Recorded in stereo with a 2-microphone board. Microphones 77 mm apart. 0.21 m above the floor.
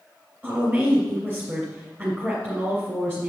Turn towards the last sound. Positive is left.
turn(degrees=-25)  # may be behind; listen again after turning